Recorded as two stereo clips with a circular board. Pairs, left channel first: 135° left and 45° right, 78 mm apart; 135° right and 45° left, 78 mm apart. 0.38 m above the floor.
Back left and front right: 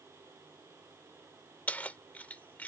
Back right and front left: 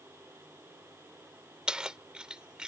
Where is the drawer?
I don't hear a drawer.